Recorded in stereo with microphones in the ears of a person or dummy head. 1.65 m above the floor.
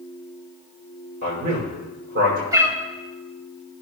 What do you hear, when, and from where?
1.2 s a man speaking: 50° right (ahead or behind), 6 m
2.5 s a cat meowing: 20° right (ahead or behind), 2 m